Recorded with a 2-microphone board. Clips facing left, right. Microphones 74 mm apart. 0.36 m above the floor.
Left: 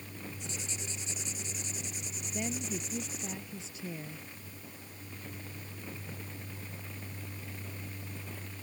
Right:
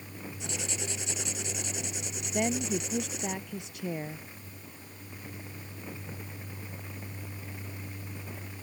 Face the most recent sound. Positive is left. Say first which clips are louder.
# right 8 dB
turn(degrees=-60)  # may be behind; listen again after turning